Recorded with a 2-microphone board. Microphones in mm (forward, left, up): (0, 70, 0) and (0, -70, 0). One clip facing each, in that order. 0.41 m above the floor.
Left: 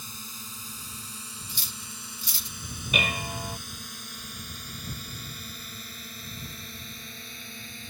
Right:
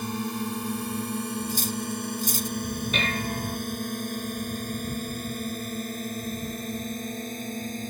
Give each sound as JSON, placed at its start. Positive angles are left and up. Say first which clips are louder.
{"t": 0.0, "sound": "a drone", "louder": "right 17 dB", "side_deg": -65}
{"t": 1.5, "sound": "cutlery clinking", "louder": "right 16 dB", "side_deg": -50}
{"t": 2.9, "sound": "dishes clattering", "louder": "left 2 dB", "side_deg": 10}